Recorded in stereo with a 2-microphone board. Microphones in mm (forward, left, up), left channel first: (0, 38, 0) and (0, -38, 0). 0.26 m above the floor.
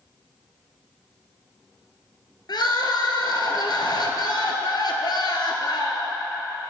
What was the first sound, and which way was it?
Crying, 80° left.